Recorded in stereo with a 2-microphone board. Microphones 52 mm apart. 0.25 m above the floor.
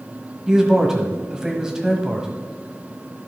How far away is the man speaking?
About 1.2 m.